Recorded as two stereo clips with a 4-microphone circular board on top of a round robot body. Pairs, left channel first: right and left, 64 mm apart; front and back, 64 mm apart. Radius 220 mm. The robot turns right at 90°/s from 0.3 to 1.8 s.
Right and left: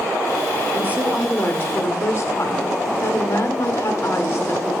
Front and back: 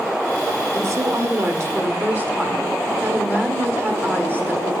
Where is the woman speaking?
135° left, 1.5 m; by 4.7 s 125° right, 1.5 m.